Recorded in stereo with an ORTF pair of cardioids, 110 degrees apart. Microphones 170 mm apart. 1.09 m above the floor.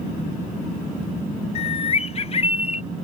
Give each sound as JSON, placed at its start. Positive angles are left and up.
{"t": 1.6, "sound": "a bird", "azimuth_deg": 40}